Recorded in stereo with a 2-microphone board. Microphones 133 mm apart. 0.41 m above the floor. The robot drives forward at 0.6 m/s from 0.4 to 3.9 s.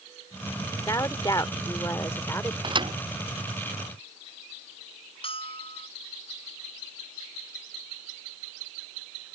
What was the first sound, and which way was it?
A woman speaking, 25° left (ahead or behind).